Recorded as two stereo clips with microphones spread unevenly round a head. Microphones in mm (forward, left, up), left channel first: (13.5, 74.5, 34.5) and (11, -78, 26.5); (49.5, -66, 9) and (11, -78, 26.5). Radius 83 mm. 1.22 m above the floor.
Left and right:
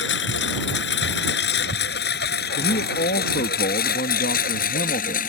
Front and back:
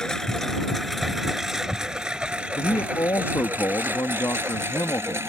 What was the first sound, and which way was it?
A lawn mower, 110° left.